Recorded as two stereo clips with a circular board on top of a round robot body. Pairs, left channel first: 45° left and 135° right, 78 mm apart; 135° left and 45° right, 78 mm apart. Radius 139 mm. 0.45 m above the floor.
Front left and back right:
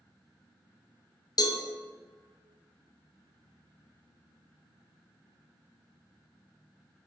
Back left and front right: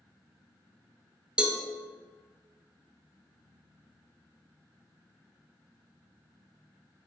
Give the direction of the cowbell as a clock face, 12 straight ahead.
11 o'clock.